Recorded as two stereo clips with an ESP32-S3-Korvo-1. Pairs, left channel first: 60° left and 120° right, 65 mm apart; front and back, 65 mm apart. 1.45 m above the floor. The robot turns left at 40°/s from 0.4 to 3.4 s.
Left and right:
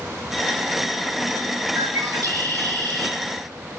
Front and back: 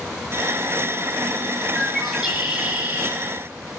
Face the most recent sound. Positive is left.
turn(degrees=-140)